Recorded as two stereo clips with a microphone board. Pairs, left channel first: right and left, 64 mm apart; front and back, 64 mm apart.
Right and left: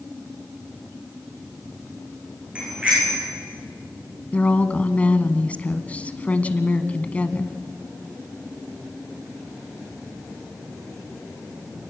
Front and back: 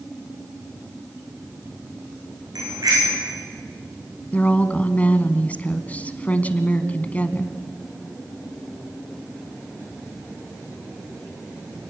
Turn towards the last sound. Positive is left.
turn(degrees=-45)